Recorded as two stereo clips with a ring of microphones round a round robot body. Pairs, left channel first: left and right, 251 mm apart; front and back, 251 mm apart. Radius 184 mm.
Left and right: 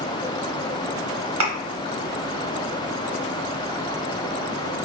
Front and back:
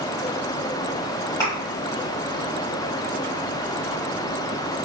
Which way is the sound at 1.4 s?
80° right.